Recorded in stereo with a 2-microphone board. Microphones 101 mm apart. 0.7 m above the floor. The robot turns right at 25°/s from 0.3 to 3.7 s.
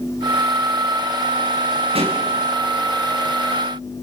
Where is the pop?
65° right (ahead or behind), 7.5 m; by 2.2 s 60° right (ahead or behind), 7.5 m.